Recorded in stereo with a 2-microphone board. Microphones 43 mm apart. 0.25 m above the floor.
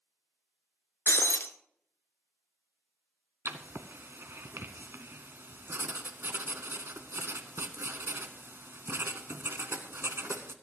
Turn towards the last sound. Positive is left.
turn(degrees=-65)  # may be behind; listen again after turning